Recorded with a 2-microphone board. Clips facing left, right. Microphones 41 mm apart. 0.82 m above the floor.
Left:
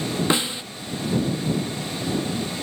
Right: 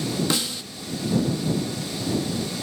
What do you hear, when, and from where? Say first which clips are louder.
0.3 s a snare drum: left 3 dB; 30° left (ahead or behind)